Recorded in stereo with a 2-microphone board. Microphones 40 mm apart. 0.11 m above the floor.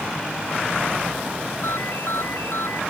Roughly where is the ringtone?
Left.